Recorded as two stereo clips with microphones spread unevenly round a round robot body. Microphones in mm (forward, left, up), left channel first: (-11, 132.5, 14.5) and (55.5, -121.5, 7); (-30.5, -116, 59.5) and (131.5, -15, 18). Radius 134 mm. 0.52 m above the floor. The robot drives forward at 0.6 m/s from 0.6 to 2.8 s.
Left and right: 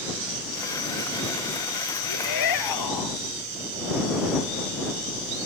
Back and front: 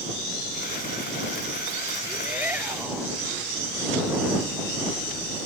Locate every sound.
2.1 s a shout: 115° left